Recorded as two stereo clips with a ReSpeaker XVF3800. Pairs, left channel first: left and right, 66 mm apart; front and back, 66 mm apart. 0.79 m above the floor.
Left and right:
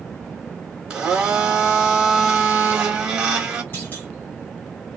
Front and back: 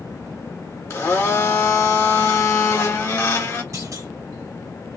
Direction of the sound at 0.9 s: 15° right.